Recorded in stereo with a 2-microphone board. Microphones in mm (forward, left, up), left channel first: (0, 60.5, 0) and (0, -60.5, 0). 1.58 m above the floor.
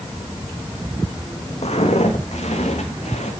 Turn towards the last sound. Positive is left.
turn(degrees=70)  # may be behind; listen again after turning